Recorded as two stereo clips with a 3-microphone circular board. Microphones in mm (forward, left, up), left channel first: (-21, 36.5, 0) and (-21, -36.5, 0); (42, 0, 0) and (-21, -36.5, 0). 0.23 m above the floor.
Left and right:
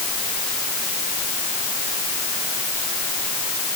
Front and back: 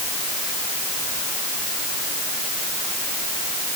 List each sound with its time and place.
Only background noise.